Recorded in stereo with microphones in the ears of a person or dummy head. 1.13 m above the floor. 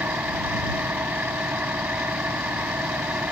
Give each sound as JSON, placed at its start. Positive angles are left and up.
{"t": 0.0, "sound": "an engine running", "side_deg": -10}